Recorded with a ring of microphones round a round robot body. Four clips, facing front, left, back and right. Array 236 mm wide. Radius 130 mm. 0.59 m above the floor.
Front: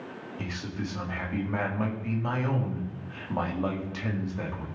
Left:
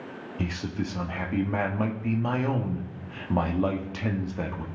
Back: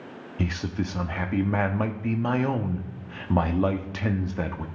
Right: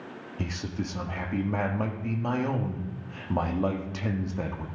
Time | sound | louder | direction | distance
0.4 | a man speaking | left 2 dB, back 7 dB | 165° left | 1.0 m